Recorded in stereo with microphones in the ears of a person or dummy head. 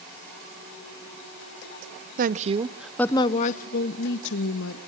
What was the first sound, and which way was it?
A woman speaking, 50° right (ahead or behind).